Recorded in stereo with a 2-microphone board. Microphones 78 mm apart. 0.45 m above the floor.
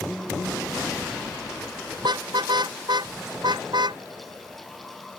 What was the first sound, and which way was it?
A car horn, 70° right (ahead or behind).